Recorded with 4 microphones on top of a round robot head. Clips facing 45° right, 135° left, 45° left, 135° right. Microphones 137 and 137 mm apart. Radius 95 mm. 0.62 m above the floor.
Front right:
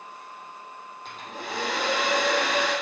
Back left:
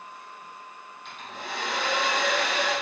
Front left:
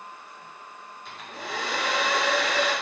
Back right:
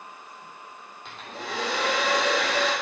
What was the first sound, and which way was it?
A hair dryer, 100° right.